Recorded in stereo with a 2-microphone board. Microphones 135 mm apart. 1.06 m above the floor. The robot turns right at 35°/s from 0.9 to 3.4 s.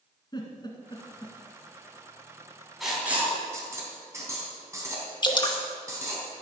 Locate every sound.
0.3 s a giggle: 35° left (ahead or behind), 2 m; by 1.4 s 20° left (ahead or behind), 2 m
2.8 s writing: centre (ahead or behind), 3.5 m; by 6.2 s 20° right (ahead or behind), 3.5 m
5.2 s dripping: 35° left (ahead or behind), 1.5 m